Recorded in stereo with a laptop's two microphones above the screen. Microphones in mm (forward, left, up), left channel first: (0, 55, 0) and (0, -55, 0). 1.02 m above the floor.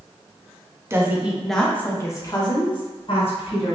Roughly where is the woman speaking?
Right.